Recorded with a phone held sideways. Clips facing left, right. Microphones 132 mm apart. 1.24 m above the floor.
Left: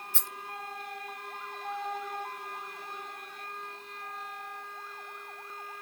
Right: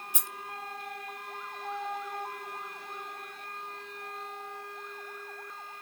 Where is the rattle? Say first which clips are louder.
Even; 15° right (ahead or behind), 0.8 m.